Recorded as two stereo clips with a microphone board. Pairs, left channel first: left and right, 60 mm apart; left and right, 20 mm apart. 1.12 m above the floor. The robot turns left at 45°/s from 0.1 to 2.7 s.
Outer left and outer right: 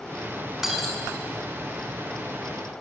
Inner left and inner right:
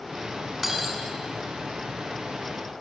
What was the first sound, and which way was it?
Breaking glass, 5° right (ahead or behind).